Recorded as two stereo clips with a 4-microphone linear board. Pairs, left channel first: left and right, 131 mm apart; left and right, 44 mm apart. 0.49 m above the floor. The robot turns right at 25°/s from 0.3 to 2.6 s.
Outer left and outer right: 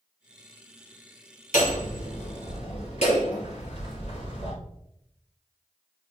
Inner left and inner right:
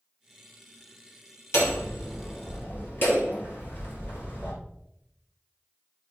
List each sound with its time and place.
1.5 s hammering: 85° left, 4 m; by 4.5 s 60° left (ahead or behind), 4 m